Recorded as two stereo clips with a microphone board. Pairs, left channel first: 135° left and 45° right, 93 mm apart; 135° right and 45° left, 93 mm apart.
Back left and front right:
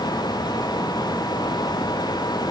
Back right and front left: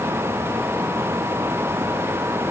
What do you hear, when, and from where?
Only background noise.